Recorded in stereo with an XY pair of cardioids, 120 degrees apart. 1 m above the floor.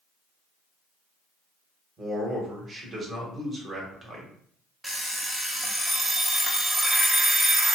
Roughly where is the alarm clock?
Ahead.